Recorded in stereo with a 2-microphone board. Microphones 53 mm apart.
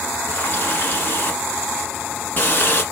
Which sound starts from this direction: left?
A running tap, at 0.3 s.